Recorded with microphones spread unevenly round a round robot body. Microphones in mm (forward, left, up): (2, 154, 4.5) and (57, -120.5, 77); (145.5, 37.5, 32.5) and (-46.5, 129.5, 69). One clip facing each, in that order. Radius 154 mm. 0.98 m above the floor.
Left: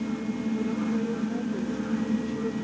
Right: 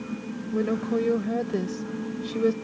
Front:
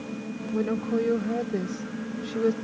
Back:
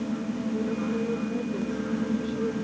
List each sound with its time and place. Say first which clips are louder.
0.5 s a woman speaking: right 5 dB, front 5 dB; 65° right